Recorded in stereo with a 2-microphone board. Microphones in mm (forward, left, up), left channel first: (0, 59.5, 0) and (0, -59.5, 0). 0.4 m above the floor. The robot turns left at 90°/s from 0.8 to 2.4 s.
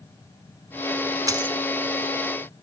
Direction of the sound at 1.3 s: 30° right (ahead or behind).